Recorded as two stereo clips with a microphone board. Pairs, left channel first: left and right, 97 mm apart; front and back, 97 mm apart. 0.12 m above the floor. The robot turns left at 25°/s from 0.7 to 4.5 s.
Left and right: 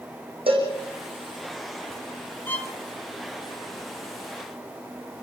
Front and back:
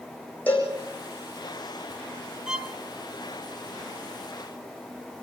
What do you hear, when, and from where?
0.5 s a cowbell: 75° right, 6.5 m
2.5 s a violin: 115° left, 1.6 m; by 2.7 s 105° left, 1.6 m